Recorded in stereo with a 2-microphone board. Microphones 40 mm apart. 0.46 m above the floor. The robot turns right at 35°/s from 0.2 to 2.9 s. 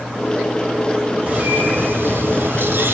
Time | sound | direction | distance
1.3 | a bird | 135° right | 2.5 m